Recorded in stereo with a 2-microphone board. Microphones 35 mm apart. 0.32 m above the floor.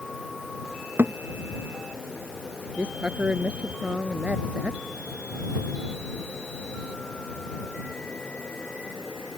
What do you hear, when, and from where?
1.0 s a thud: 80° right
2.8 s a woman speaking: 40° right (ahead or behind)